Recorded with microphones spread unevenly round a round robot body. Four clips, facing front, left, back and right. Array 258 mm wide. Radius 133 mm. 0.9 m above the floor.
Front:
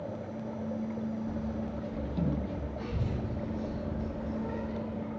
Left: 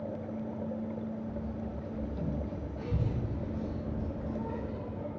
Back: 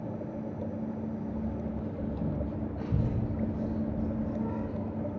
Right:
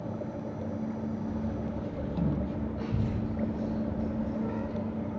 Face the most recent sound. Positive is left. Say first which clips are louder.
# right 3 dB, back 4 dB
turn(degrees=-175)